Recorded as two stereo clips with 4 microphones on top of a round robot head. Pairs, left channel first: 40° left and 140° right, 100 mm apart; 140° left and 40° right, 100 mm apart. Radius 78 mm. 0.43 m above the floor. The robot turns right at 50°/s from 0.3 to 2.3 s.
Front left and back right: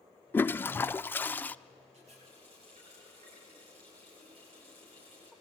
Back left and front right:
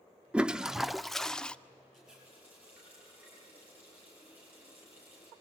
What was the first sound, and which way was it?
A toilet flushing, 20° left.